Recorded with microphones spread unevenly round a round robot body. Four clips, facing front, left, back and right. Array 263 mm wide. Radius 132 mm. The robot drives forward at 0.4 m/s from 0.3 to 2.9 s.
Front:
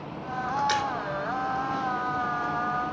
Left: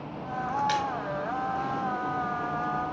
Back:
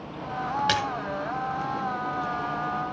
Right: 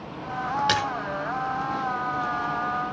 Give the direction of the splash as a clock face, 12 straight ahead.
4 o'clock.